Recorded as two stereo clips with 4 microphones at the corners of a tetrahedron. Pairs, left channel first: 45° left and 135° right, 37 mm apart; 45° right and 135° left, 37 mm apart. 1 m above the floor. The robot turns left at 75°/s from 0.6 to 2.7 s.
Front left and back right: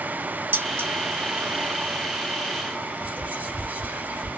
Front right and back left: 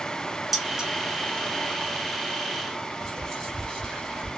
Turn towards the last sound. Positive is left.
turn(degrees=-115)